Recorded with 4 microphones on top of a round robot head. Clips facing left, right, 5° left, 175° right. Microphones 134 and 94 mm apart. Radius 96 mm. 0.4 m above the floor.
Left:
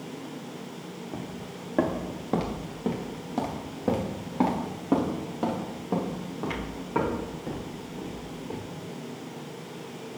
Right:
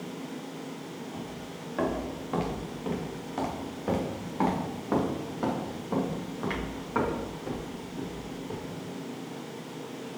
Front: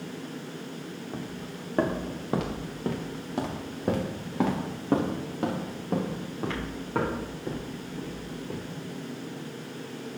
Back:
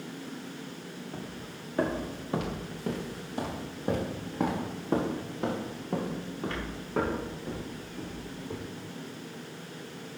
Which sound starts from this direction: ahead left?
Footsteps, at 1.1 s.